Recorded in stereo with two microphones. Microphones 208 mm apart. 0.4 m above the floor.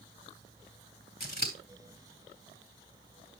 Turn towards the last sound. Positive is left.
turn(degrees=45)  # may be behind; listen again after turning